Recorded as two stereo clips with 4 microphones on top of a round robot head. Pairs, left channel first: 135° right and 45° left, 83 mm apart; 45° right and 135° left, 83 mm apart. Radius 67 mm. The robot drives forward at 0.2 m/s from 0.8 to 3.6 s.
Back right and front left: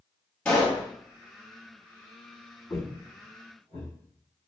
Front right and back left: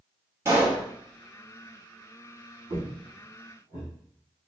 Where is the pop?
155° left, 1.5 m.